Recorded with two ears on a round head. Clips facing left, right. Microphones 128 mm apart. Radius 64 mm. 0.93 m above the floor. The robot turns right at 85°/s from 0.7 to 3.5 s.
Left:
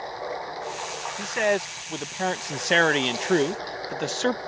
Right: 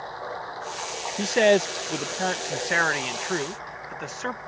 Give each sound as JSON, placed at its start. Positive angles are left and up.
{"t": 0.0, "sound": "running water", "azimuth_deg": 165}
{"t": 1.2, "sound": "a man speaking", "azimuth_deg": -85}